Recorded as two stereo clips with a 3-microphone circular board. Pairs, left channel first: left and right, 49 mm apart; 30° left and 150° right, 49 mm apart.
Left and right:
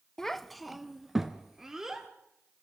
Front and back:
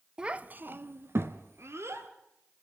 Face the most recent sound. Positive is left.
turn(degrees=-170)